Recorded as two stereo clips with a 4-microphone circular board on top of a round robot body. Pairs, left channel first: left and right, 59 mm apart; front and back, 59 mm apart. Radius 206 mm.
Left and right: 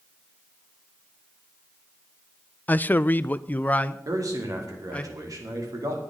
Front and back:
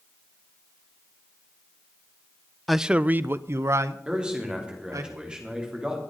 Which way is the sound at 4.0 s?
105° right.